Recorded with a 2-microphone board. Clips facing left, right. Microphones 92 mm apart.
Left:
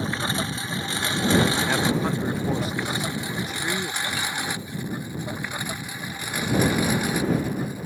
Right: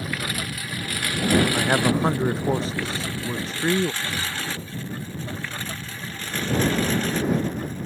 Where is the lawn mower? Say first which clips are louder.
Left 3 dB; 30° left (ahead or behind); by 7.9 s 15° left (ahead or behind).